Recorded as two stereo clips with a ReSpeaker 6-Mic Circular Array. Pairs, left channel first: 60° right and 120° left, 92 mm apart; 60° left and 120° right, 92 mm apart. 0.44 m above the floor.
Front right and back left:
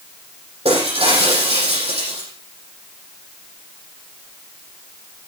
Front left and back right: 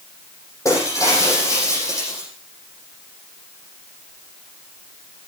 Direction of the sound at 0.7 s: 120° left.